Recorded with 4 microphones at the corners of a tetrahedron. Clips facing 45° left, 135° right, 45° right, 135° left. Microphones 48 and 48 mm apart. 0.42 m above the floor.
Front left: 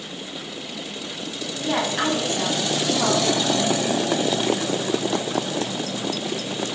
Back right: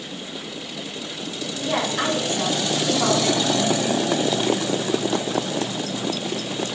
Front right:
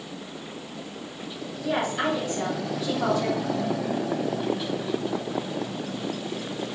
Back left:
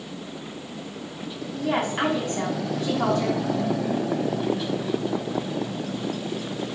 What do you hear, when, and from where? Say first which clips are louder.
1.5 s a woman speaking: even, back left 2 dB; 105° left, 3.5 m